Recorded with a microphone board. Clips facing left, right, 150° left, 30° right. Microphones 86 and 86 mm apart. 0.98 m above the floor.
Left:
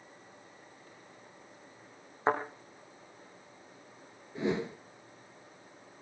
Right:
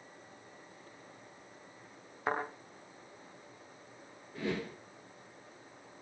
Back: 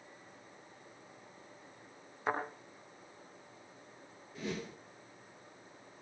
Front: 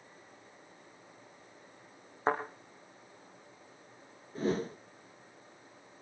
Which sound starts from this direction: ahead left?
A thud, at 2.3 s.